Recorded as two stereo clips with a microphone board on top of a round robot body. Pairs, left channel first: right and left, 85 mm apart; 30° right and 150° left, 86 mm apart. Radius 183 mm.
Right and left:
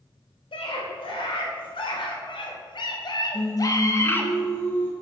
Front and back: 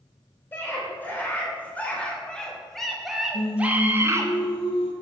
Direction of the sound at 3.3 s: 25° right.